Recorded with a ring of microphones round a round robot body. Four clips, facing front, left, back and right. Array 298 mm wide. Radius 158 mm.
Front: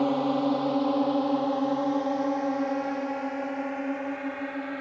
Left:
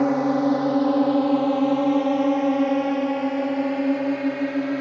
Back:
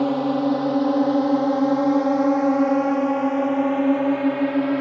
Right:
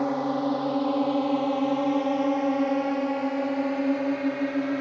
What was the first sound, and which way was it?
A drone, 120° left.